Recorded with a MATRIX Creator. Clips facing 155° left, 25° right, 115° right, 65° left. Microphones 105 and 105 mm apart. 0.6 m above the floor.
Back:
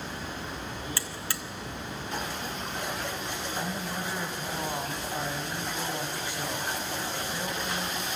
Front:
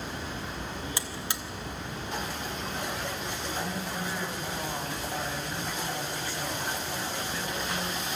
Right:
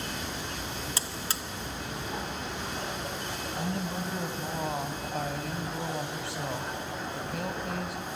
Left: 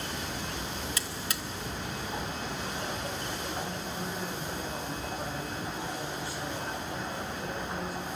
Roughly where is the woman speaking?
Behind right.